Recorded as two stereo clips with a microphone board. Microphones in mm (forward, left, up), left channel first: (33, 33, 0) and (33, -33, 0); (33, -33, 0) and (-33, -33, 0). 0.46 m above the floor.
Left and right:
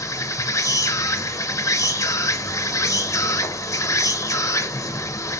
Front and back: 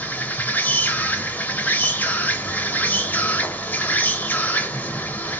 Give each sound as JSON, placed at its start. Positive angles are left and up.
{"t": 0.0, "sound": "an insect", "azimuth_deg": 55, "distance_m": 0.8}